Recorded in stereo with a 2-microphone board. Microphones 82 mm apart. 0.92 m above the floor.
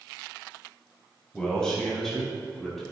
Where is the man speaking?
10° left (ahead or behind), 4.5 m; by 2.8 s centre (ahead or behind), 5.5 m.